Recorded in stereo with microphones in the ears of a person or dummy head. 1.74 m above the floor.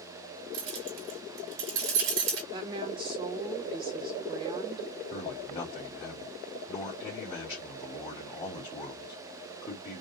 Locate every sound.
0.5 s keys jangling: 55° right (ahead or behind), 3 m
2.5 s a woman speaking: 25° right (ahead or behind), 1.8 m
5.1 s a man speaking: 25° left (ahead or behind), 3 m